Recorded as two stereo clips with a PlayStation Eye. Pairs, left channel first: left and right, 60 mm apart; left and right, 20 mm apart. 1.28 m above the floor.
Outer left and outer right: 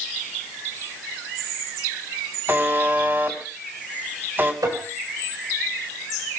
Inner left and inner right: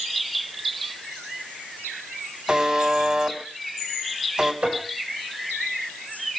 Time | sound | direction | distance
2.5 | a buzzer | 35° right (ahead or behind) | 3 m
4.6 | tapping | 70° right (ahead or behind) | 3.5 m